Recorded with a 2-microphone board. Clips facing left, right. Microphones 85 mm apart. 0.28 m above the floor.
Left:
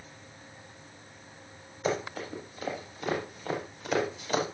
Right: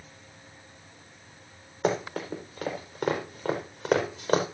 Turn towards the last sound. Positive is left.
turn(degrees=-55)  # may be behind; listen again after turning